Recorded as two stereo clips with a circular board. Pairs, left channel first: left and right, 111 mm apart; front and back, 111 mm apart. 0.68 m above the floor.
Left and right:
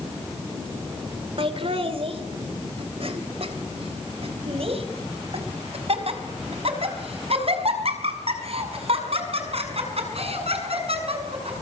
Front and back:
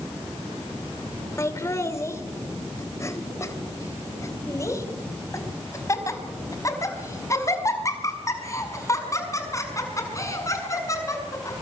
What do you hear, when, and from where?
1.4 s laughter: 60° right, 2 m